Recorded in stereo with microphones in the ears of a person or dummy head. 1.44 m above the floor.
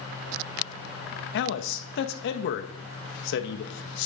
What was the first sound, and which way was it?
A man speaking, 65° left (ahead or behind).